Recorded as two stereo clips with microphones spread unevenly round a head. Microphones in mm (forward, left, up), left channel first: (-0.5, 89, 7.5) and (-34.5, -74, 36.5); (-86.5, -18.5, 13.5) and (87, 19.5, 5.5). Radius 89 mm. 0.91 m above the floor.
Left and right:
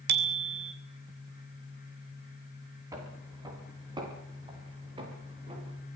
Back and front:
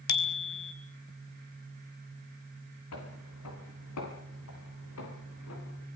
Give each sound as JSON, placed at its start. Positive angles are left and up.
{"t": 0.1, "sound": "a bicycle bell", "azimuth_deg": -130, "distance_m": 3.0}
{"t": 2.9, "sound": "footsteps", "azimuth_deg": -170, "distance_m": 8.5}